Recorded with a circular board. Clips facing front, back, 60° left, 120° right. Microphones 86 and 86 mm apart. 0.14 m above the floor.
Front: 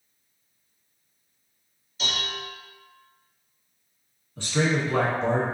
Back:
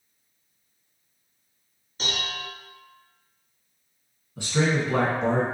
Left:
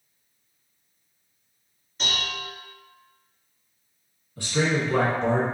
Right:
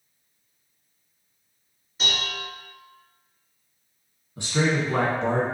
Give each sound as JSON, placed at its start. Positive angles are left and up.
{"t": 2.0, "sound": "dishes clattering", "azimuth_deg": 155, "distance_m": 1.2}
{"t": 4.4, "sound": "a man speaking", "azimuth_deg": -125, "distance_m": 1.2}